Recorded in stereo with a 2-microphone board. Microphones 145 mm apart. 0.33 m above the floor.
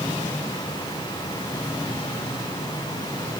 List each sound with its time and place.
Only background noise.